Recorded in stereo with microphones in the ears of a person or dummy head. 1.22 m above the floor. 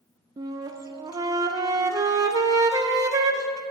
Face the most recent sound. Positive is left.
turn(degrees=-20)  # may be behind; listen again after turning